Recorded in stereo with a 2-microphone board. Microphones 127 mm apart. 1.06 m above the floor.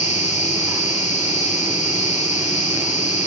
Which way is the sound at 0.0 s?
70° left (ahead or behind).